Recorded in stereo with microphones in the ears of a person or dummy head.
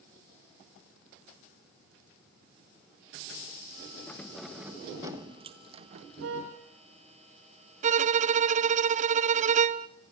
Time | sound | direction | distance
4.1 | keys jangling | 10° left (ahead or behind) | 1.3 m
6.2 | a car horn | 75° right (ahead or behind) | 8.5 m
7.8 | a violin | 40° right (ahead or behind) | 0.7 m